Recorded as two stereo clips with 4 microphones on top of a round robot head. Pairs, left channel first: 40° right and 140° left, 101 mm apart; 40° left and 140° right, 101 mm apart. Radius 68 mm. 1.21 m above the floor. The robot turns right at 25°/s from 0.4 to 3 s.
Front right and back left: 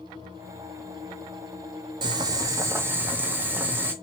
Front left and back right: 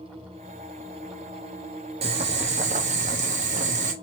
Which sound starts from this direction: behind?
Boiling, at 2.0 s.